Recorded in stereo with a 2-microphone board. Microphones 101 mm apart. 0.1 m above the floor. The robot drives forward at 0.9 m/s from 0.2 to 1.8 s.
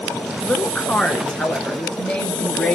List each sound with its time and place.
0.4 s a woman speaking: 10° left (ahead or behind), 1.2 m